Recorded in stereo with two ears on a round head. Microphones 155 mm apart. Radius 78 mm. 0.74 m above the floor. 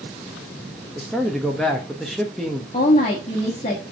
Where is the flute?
I don't hear a flute.